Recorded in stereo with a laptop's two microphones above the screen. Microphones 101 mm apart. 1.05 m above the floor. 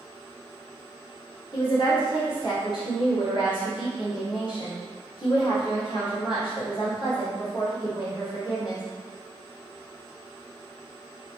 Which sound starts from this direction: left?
A woman speaking, at 1.5 s.